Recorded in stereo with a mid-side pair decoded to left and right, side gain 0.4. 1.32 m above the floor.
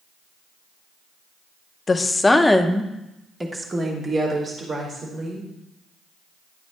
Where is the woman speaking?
35° left, 0.9 m; by 5.5 s 45° right, 2.5 m.